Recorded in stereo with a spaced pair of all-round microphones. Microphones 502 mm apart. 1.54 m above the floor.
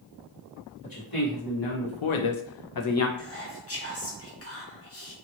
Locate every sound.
0.8 s a man speaking: 40° left (ahead or behind), 1.2 m; by 3.1 s 25° left (ahead or behind), 0.6 m
3.2 s whispering: 30° left (ahead or behind), 1.0 m